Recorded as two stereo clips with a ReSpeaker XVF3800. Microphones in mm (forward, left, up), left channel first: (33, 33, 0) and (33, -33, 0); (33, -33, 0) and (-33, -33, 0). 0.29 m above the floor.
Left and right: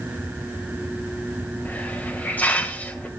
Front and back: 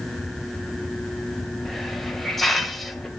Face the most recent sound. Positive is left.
turn(degrees=85)